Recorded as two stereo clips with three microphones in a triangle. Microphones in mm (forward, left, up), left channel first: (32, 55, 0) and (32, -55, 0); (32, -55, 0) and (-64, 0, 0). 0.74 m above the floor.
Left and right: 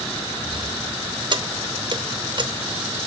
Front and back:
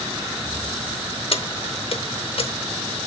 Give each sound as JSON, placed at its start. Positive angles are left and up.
{"t": 1.3, "sound": "keys jangling", "azimuth_deg": -50, "distance_m": 0.9}